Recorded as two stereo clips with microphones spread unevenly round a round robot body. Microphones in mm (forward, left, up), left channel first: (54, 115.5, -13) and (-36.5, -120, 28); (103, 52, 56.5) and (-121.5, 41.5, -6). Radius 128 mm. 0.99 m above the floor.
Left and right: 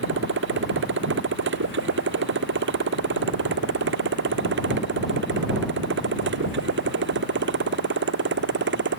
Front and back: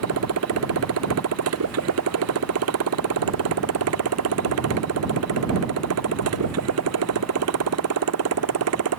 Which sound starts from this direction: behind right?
A motorcycle, at 0.0 s.